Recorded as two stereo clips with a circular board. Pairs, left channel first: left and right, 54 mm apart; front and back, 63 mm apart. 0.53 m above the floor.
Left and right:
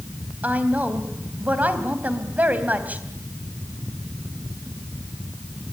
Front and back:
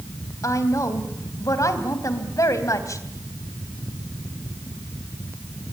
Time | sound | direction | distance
0.4 | a woman speaking | 30° right | 3 m